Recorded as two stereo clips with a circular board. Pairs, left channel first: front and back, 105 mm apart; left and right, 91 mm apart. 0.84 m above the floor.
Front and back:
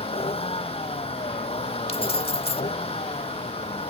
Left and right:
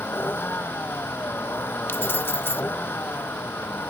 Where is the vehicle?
20° left.